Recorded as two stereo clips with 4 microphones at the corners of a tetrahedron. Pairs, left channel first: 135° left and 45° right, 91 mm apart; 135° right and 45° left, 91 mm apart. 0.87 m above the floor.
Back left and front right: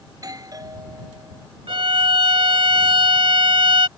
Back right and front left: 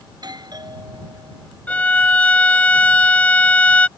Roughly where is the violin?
Ahead right.